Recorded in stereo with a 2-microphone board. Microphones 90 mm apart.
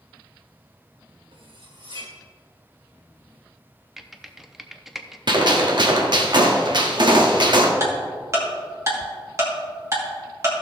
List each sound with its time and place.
1.3 s cutlery clinking: 75° right (ahead or behind), 2 m
4.0 s typing on a keyboard: centre (ahead or behind), 0.6 m
5.3 s a gunshot: 55° right (ahead or behind), 1.3 m
7.8 s ticking: 35° right (ahead or behind), 2.5 m